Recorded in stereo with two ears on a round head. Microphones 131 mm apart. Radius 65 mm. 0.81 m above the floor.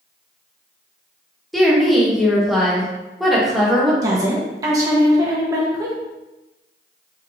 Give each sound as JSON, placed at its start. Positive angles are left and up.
{"t": 1.5, "sound": "a woman speaking", "side_deg": 0, "distance_m": 1.2}
{"t": 4.0, "sound": "a woman speaking", "side_deg": -25, "distance_m": 1.0}